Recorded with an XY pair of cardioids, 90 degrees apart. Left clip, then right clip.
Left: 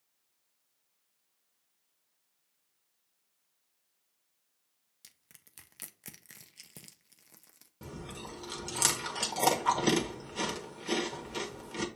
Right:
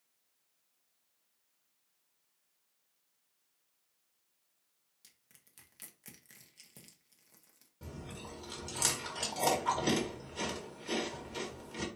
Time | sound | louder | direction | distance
5.0 | crushing | left 5 dB | 50° left | 0.7 m
7.8 | chewing | left 3 dB | 45° left | 1.5 m